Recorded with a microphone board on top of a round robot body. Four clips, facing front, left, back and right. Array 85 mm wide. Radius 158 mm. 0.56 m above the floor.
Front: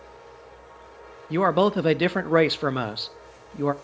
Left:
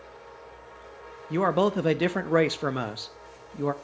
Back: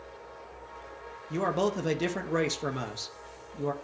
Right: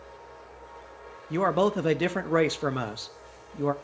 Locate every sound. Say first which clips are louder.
1.3 s a man speaking: left 1 dB, front 8 dB; 5° left, 0.7 m